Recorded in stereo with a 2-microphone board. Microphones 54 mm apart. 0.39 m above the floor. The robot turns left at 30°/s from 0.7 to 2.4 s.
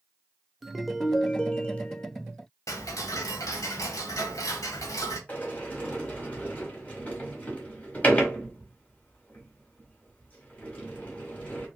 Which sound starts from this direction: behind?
A ringtone, at 0.6 s.